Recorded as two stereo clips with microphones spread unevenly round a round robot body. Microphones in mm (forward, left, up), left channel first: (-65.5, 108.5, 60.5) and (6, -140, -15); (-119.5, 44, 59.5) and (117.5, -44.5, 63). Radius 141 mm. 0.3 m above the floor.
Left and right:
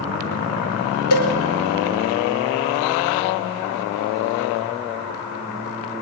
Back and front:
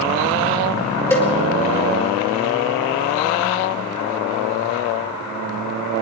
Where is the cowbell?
80° left, 5 m.